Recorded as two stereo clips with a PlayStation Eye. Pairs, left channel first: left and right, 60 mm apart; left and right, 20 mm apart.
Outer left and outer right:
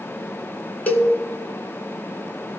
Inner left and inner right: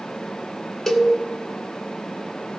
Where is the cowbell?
30° left (ahead or behind), 1.1 m.